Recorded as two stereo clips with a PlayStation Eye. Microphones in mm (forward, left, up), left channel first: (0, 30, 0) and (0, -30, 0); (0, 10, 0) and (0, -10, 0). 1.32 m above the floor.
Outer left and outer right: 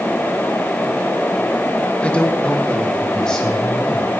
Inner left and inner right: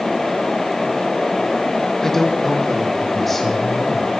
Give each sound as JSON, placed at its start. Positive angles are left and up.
{"t": 2.0, "sound": "a man speaking", "side_deg": 20, "distance_m": 2.0}